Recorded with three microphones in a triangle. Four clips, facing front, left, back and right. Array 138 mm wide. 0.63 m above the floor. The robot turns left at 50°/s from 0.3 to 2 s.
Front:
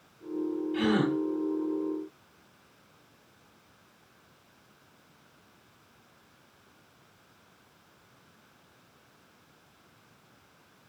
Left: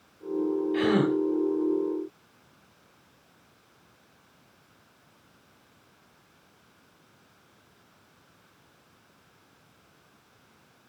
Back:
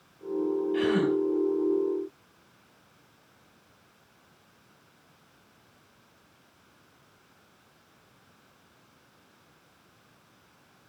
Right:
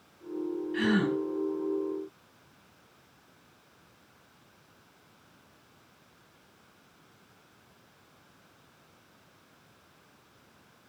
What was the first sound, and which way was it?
A gasp, 95° left.